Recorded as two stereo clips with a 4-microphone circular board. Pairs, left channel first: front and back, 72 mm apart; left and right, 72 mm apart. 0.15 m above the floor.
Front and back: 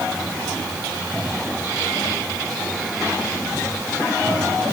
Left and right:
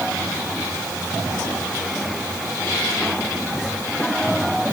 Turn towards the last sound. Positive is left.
No sound to turn to.